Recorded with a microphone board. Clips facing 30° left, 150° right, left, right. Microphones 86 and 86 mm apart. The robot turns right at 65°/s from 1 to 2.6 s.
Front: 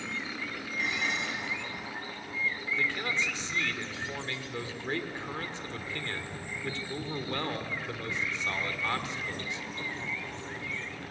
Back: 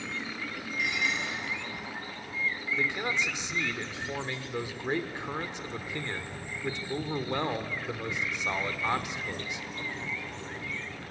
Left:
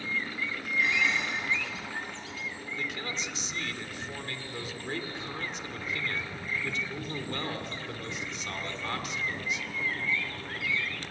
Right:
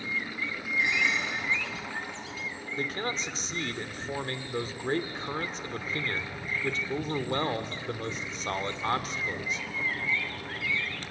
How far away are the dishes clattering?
About 6.5 m.